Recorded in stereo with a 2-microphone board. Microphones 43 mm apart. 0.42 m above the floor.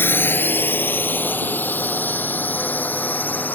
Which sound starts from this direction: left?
A drone, at 0.0 s.